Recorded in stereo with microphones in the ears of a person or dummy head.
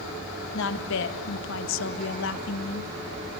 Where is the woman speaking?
65° left (ahead or behind), 1.8 m.